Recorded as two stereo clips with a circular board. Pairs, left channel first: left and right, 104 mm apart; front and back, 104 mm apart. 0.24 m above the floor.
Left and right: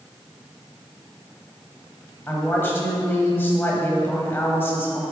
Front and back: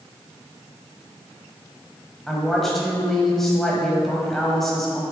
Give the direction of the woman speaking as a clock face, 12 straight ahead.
9 o'clock.